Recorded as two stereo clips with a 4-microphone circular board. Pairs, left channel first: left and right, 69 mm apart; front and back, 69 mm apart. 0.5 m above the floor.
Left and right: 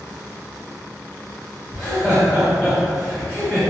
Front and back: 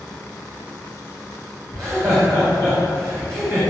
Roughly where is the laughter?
Behind left.